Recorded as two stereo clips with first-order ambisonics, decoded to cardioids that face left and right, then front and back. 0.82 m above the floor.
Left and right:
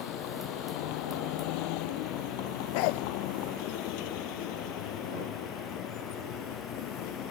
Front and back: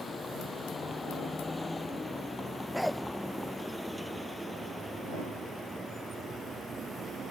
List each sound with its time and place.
0.0 s a vehicle: 75° left; by 7.3 s 115° left
2.7 s a dog barking: 90° left